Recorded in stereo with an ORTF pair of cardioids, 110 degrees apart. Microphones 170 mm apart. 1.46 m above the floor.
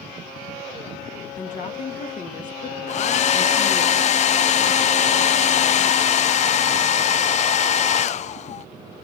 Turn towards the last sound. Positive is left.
turn(degrees=45)